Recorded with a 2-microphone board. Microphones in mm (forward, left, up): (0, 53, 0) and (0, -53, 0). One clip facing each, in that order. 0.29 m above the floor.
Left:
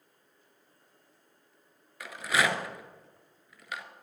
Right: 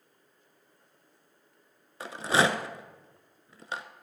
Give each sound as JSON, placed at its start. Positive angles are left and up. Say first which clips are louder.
{"t": 2.0, "sound": "a rattle", "louder": "right 3 dB", "side_deg": -30, "distance_m": 0.6}